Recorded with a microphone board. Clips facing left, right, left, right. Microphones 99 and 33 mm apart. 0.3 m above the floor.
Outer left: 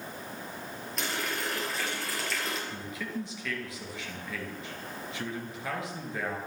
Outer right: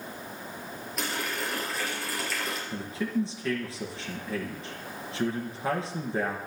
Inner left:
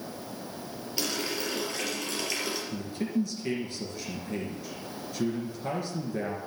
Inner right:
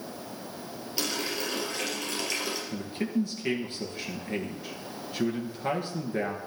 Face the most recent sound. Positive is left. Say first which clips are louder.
# outer right 6 dB, inner right 1 dB
turn(degrees=-30)  # may be behind; listen again after turning